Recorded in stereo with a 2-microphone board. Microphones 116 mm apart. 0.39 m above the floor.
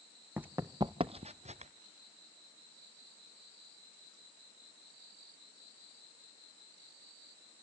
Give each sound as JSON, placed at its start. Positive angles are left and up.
{"t": 0.4, "sound": "running footsteps", "side_deg": -10, "distance_m": 1.2}